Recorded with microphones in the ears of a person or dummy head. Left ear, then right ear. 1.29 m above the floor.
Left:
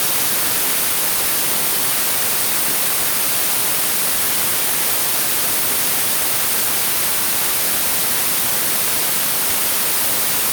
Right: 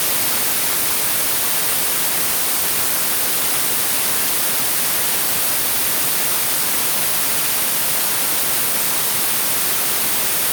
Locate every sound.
Only background noise.